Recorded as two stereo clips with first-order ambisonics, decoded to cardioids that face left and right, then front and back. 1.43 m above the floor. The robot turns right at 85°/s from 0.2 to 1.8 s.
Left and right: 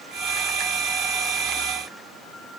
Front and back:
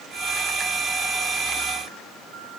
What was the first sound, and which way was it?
Only background noise.